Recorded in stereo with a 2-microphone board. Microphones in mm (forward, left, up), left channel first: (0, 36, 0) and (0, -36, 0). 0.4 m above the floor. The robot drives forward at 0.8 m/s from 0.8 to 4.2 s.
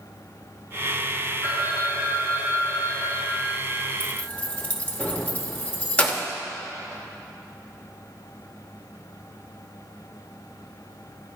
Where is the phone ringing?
55° left (ahead or behind), 1.5 m; by 3.9 s 25° left (ahead or behind), 3 m.